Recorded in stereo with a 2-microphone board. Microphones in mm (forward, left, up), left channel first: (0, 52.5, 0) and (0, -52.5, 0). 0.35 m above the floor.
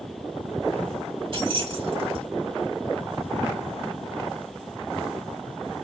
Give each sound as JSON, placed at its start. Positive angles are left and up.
{"t": 1.3, "sound": "keys jangling", "side_deg": -60, "distance_m": 1.4}